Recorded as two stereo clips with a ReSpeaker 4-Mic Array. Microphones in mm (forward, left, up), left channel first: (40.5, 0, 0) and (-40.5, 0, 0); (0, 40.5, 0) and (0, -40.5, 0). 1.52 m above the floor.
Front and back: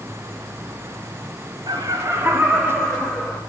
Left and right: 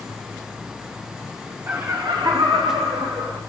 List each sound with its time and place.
1.7 s laughter: 150° right, 1.4 m; by 3.4 s 75° right, 2.5 m